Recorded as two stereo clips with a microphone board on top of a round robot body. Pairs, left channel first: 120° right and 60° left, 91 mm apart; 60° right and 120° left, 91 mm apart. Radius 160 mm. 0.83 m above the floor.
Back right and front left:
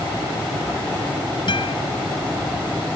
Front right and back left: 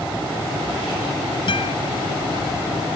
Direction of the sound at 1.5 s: 90° right.